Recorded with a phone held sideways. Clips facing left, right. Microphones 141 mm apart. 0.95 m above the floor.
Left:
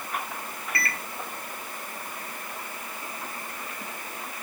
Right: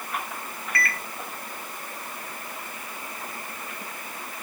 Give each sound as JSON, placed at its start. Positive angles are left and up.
{"t": 0.8, "sound": "a microwave", "side_deg": 25, "distance_m": 0.8}